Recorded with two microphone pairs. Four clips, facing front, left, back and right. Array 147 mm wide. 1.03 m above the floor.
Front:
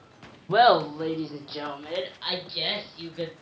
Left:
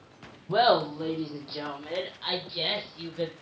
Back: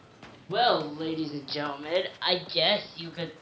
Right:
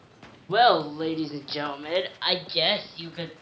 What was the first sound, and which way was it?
Laughter, 35° right.